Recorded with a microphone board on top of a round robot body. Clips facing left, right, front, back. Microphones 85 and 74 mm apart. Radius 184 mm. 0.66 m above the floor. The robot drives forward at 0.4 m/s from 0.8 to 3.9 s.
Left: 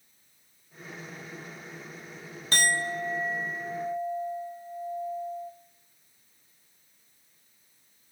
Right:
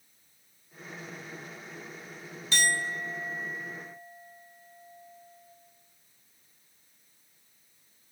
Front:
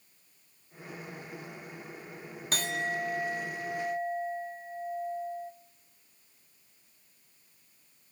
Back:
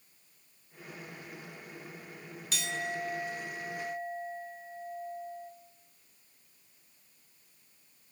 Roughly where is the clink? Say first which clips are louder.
Left 2 dB, front 3 dB; ahead left.